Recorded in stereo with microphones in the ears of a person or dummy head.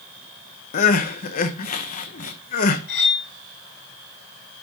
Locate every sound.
0.7 s crying: 45° left (ahead or behind), 0.7 m
2.9 s cutlery clinking: 70° left (ahead or behind), 4 m